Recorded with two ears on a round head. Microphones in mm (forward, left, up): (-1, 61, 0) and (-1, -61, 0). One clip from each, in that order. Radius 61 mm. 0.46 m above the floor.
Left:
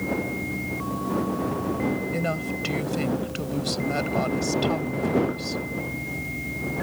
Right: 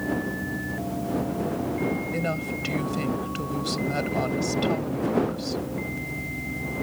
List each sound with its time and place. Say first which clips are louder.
2.1 s a woman speaking: left 1 dB; 5° left (ahead or behind)